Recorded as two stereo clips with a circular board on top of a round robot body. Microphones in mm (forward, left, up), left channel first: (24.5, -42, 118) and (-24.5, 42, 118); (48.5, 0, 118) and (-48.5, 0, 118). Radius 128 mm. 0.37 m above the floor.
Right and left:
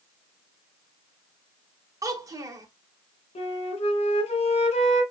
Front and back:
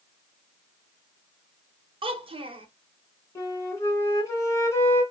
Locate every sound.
2.0 s a child speaking: 170° left, 1.0 m
3.4 s a flute: 60° right, 1.1 m